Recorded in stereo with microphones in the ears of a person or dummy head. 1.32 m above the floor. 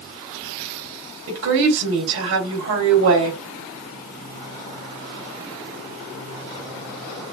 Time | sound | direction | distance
1.3 | a woman speaking | 80° right | 2 m